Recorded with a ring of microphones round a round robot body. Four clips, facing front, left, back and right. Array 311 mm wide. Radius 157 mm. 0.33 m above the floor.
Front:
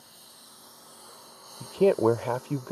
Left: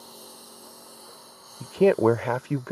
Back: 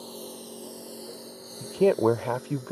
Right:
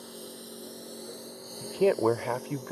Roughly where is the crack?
No crack in this recording.